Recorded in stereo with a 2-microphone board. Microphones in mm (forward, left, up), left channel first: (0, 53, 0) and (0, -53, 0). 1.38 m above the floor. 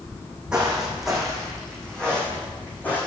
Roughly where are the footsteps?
Centre.